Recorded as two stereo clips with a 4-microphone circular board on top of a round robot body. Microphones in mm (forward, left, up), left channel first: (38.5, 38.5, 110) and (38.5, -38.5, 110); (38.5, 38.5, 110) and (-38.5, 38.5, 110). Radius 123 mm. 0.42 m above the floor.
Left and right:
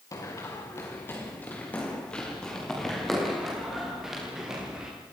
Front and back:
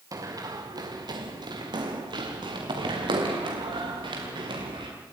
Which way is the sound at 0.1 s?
140° left.